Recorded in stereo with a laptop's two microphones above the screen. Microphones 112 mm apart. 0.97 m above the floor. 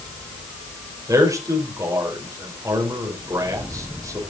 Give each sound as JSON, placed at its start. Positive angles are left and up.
{"t": 1.1, "sound": "a man speaking", "side_deg": -30, "distance_m": 4.5}